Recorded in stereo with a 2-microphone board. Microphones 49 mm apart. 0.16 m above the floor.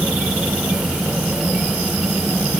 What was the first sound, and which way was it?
Only background noise.